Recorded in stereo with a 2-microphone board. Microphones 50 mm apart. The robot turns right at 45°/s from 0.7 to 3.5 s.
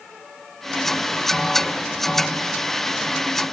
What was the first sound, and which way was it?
Only background noise.